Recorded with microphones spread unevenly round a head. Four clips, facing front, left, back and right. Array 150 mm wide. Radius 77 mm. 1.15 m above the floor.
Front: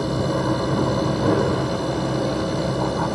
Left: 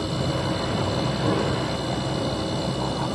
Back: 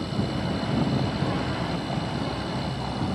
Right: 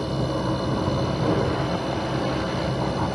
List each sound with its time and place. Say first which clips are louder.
0.0 s a machine running: right 1 dB, front 7 dB; 5° right